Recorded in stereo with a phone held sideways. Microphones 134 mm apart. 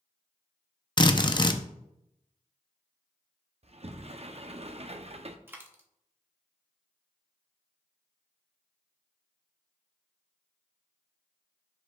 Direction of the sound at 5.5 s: 15° right (ahead or behind).